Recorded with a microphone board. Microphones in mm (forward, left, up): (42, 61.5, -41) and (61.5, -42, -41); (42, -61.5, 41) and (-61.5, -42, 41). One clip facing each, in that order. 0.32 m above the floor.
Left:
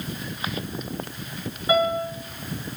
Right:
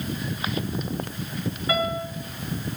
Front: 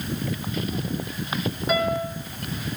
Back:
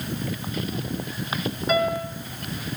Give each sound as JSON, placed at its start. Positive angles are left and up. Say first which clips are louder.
{"t": 1.7, "sound": "a piano", "louder": "left 5 dB, back 1 dB", "azimuth_deg": 75, "distance_m": 1.4}